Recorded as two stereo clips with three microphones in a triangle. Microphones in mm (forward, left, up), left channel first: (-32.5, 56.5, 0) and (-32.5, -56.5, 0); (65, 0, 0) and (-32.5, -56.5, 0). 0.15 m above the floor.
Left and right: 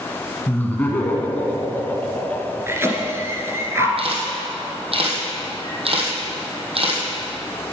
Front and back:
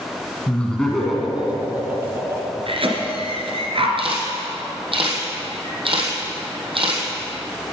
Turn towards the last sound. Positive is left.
turn(degrees=-115)